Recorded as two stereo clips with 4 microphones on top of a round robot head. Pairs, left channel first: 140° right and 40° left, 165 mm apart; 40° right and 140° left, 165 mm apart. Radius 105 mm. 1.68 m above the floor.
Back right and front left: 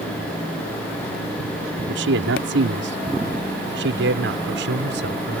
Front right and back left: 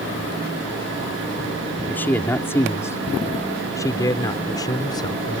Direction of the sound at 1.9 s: 35° left.